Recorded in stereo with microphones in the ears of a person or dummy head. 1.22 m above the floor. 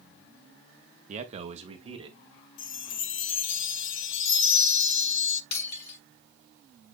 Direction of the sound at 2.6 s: 65° left (ahead or behind).